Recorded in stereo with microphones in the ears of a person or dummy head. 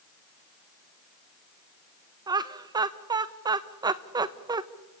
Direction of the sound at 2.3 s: 20° right (ahead or behind).